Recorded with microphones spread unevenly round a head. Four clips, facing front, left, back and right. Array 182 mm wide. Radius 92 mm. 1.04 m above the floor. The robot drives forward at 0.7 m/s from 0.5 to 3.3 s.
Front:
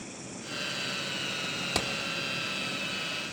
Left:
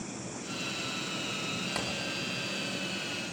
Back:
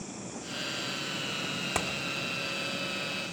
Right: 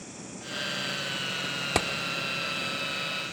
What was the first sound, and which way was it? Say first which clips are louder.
An insect: left 2 dB, back 2 dB; 115° left.